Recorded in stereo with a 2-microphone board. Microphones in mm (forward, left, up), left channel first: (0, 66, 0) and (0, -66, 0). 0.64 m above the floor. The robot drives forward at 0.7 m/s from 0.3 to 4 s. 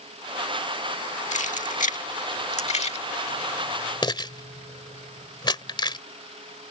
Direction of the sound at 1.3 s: 65° left (ahead or behind).